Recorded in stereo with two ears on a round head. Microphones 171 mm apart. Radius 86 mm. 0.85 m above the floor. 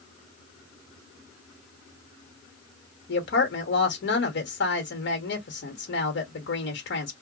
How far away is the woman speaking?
About 1.1 m.